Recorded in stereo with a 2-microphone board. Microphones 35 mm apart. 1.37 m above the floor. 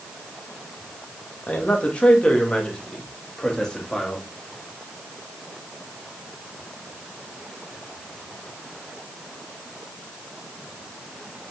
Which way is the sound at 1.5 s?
40° left (ahead or behind).